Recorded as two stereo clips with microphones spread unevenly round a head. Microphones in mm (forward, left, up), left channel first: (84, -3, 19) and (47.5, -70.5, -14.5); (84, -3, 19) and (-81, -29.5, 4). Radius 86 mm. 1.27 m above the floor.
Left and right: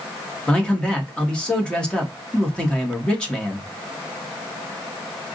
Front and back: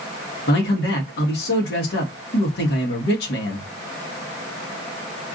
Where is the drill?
No drill in this recording.